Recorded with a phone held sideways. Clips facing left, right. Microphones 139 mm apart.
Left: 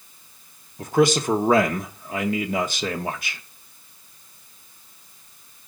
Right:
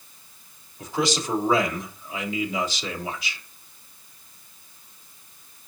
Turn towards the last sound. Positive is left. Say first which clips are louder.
# left 7 dB
turn(degrees=55)  # may be behind; listen again after turning